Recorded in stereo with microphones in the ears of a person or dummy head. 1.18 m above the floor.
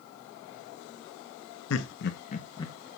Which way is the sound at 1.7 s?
70° left (ahead or behind).